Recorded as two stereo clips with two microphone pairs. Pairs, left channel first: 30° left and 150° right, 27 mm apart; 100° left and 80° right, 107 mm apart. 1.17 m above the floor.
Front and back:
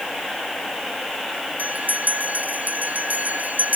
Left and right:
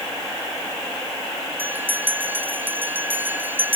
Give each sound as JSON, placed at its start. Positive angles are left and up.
{"t": 1.6, "sound": "a bell", "azimuth_deg": -150}